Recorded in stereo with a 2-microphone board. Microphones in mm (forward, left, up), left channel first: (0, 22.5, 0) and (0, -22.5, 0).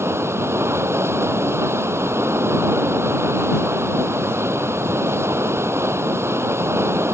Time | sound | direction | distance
0.0 | running water | 75° right (ahead or behind) | ?